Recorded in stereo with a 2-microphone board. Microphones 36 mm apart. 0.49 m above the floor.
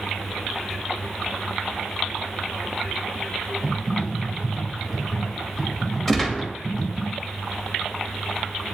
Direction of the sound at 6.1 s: 5° left (ahead or behind).